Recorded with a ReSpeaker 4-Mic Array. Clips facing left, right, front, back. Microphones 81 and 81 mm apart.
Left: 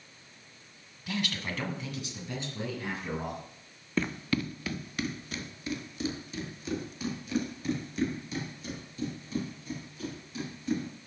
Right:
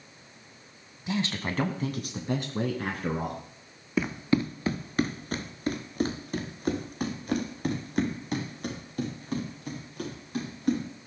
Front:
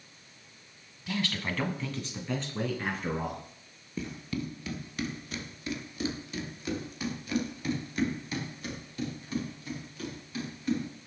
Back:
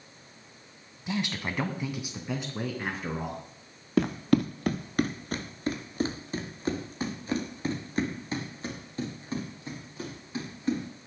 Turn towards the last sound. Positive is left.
turn(degrees=-120)